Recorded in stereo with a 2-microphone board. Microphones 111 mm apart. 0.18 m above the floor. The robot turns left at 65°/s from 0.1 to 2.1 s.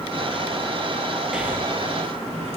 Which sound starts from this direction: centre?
Breathing, at 1.3 s.